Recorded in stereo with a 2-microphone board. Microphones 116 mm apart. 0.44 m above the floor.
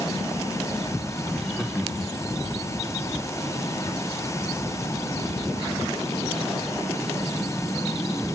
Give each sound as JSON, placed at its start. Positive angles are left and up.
{"t": 1.3, "sound": "laughter", "side_deg": 10, "distance_m": 1.3}